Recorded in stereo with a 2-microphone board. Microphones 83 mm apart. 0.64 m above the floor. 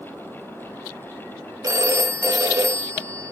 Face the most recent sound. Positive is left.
turn(degrees=-40)  # may be behind; listen again after turning